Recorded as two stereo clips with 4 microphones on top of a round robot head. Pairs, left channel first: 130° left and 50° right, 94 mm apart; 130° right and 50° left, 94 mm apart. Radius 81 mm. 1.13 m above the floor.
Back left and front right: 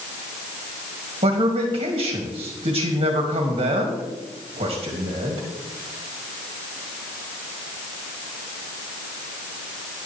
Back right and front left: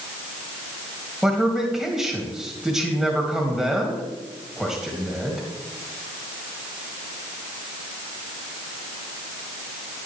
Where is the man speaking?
40° right, 2 m.